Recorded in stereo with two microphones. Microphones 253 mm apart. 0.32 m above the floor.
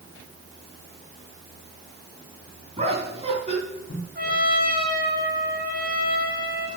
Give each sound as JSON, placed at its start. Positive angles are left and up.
{"t": 2.8, "sound": "laughter", "side_deg": -25, "distance_m": 3.0}
{"t": 4.2, "sound": "a trumpet", "side_deg": -40, "distance_m": 2.0}